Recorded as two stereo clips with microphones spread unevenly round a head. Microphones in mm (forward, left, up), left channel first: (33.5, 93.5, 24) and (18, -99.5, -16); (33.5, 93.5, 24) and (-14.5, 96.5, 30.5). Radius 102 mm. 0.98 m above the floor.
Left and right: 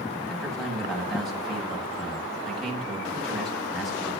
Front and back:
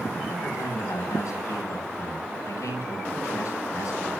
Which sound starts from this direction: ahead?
A man speaking, at 0.3 s.